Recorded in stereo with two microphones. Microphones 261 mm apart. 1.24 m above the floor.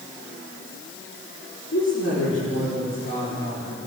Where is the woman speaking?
75° left (ahead or behind), 3.5 m; by 3.8 s 60° left (ahead or behind), 4.5 m.